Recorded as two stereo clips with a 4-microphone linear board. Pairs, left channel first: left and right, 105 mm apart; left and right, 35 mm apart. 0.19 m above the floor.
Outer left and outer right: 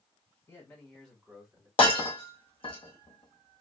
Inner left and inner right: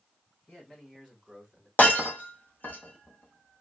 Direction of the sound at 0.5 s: 25° left (ahead or behind).